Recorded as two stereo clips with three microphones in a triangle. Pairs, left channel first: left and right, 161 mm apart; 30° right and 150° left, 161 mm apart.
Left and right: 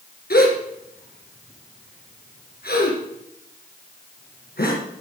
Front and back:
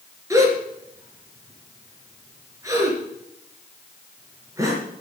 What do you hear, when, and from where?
0.3 s a gasp: 80° left, 3.5 m